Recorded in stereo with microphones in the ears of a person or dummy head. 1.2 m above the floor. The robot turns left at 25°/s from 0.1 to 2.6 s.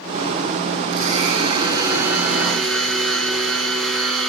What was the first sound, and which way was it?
A blender, 140° right.